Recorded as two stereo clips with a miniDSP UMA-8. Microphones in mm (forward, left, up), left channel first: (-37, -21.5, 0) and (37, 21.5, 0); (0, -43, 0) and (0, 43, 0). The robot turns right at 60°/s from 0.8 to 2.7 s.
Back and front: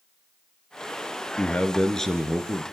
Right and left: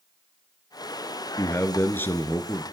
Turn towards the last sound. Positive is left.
turn(degrees=-30)